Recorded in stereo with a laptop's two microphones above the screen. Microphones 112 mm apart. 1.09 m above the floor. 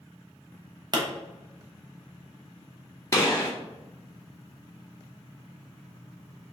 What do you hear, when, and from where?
0.9 s a pop: 40° right (ahead or behind), 0.6 m
3.1 s a gunshot: 30° left (ahead or behind), 1.4 m